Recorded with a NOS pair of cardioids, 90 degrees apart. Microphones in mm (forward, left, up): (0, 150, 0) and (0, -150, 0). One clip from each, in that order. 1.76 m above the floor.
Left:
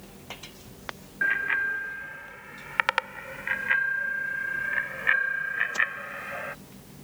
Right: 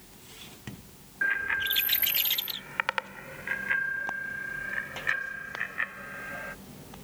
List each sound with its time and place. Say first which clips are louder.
1.2 s a bicycle bell: left 3 dB; 25° left; by 6.5 s 45° left